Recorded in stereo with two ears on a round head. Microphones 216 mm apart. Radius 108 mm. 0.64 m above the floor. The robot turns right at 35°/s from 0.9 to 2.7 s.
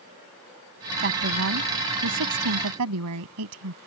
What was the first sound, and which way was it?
A woman speaking, 135° right.